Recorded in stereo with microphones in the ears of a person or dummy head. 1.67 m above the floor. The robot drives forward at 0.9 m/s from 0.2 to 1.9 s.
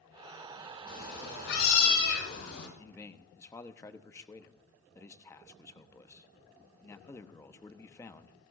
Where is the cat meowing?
60° left (ahead or behind), 4.5 m; by 2.7 s 70° left (ahead or behind), 4 m.